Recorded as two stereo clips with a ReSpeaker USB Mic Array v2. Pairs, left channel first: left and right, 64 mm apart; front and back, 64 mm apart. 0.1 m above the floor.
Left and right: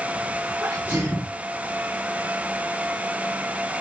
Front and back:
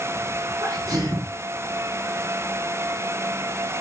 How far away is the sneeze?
About 7.5 m.